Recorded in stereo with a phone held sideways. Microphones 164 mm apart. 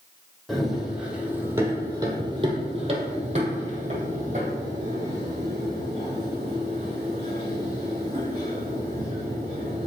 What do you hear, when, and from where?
0.5 s running footsteps: centre (ahead or behind), 2.5 m; by 9.9 s 40° right (ahead or behind), 7 m